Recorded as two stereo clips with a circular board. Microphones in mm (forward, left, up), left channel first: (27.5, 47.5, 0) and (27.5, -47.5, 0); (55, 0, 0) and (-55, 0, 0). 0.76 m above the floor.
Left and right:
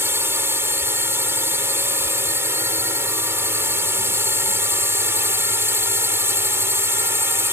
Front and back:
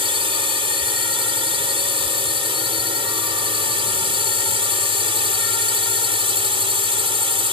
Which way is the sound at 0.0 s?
150° right.